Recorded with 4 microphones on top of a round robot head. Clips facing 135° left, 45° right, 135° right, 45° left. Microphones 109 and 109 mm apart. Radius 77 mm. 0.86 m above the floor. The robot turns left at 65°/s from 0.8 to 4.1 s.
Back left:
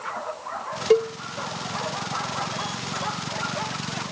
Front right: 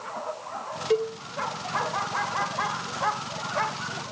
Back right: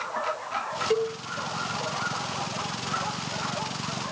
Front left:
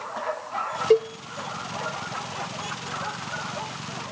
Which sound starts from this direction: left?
A cowbell, at 0.9 s.